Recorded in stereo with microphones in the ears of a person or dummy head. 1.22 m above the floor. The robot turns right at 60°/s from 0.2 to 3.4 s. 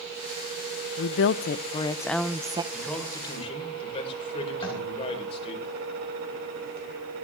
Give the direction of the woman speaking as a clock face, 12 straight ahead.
9 o'clock.